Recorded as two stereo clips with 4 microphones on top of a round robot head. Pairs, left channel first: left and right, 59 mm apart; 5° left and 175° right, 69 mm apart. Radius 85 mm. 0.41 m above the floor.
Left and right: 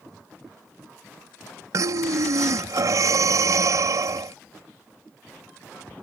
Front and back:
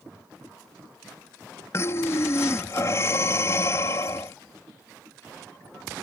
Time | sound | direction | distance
1.7 | breathing | 55° right | ?